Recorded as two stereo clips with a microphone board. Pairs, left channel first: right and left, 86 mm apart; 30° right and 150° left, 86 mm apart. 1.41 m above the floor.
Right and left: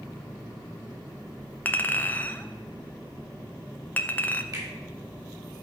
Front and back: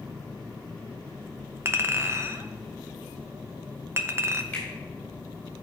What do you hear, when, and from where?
1.6 s a clink: 155° right, 0.5 m
4.5 s a finger snap: 45° left, 3 m